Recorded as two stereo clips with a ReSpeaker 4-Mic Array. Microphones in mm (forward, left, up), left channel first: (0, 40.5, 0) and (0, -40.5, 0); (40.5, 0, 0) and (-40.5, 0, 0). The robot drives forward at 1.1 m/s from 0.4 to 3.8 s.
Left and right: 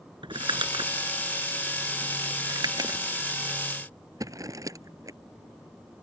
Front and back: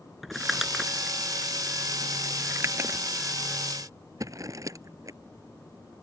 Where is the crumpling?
95° right; by 5.2 s 135° right.